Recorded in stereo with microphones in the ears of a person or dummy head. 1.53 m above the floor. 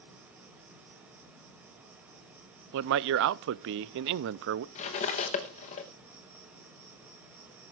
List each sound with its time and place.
0.0 s an insect: 10° right (ahead or behind), 1.9 m
2.7 s a man speaking: 70° right (ahead or behind), 0.5 m
4.8 s cutlery clinking: 35° left (ahead or behind), 0.9 m